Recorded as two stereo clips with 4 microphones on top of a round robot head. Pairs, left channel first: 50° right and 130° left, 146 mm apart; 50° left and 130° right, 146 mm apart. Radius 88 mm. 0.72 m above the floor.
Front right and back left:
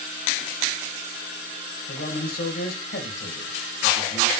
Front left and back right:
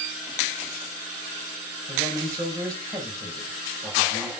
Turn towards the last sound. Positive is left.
turn(degrees=-65)